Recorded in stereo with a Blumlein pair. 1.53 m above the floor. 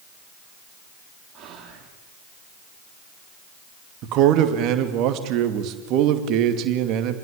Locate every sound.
1.3 s whispering: 30° right, 3.5 m
4.0 s a man speaking: 35° right, 2.5 m